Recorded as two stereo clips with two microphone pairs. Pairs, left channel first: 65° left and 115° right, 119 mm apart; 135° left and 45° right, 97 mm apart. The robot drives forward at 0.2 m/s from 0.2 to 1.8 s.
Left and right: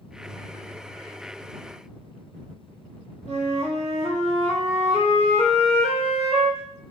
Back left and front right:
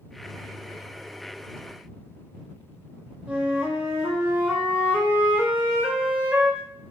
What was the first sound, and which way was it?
A flute, 120° right.